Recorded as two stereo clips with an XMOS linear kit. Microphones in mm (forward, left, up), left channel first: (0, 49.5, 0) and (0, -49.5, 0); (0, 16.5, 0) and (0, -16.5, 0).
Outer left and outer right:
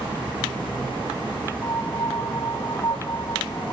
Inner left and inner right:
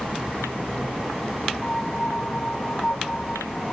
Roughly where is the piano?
Left.